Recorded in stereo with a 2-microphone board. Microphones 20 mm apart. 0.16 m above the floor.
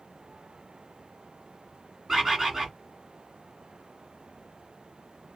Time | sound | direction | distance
2.1 | a bird | 25° right (ahead or behind) | 1.4 m